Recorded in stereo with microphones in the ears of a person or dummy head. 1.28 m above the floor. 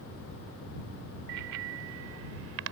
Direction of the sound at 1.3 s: 75° right (ahead or behind).